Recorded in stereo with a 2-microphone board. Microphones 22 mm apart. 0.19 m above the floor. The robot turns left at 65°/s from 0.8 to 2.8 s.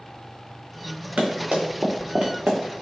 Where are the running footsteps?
80° right, 1.4 m; by 2.8 s 65° right (ahead or behind), 1.0 m.